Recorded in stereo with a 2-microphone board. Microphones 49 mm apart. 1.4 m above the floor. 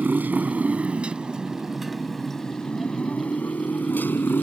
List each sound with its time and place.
0.0 s a motorcycle: 45° right (ahead or behind); by 4.4 s 45° left (ahead or behind)